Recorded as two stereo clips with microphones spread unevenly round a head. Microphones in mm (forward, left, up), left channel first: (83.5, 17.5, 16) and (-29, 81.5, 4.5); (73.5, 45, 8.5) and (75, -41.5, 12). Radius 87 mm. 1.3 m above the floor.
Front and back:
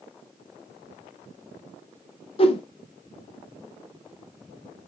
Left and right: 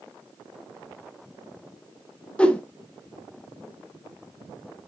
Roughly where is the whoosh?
Ahead.